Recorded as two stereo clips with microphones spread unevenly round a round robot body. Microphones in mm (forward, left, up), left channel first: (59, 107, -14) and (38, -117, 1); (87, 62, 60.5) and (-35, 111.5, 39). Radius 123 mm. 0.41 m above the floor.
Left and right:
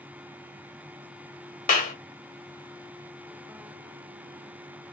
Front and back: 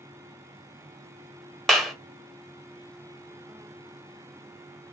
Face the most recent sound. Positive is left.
turn(degrees=80)